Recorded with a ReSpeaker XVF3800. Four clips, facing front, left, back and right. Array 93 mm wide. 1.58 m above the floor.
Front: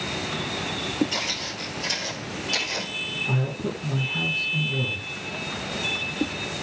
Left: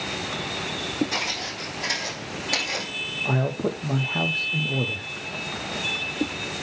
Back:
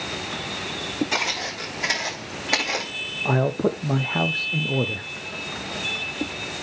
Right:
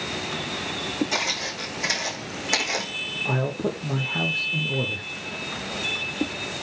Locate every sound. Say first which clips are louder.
1.1 s footsteps: right 2 dB, back 4 dB; 165° right, 5.5 m; by 2.9 s 160° right, 4.5 m
3.2 s a man speaking: left 1 dB, back 8 dB; 175° left, 0.9 m